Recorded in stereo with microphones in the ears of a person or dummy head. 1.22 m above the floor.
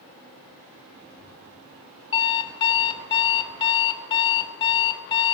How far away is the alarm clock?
About 2 m.